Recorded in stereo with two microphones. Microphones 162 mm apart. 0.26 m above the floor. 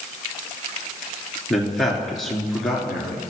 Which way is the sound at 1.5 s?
Centre (ahead or behind).